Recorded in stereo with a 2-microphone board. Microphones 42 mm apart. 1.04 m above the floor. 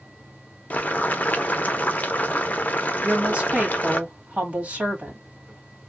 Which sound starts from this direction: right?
A woman speaking, at 3.0 s.